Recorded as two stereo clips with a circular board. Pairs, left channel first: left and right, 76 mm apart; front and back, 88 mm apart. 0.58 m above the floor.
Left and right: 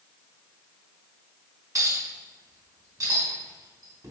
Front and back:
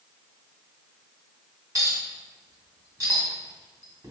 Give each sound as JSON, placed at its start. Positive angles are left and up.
{"t": 1.8, "sound": "a clink", "azimuth_deg": -130, "distance_m": 2.5}